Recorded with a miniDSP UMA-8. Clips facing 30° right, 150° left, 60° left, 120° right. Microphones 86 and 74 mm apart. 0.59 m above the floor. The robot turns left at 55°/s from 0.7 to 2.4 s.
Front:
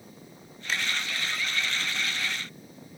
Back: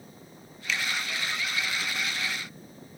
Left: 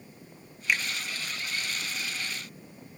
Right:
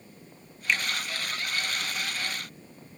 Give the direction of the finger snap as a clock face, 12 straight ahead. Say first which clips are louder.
Even, even; 1 o'clock.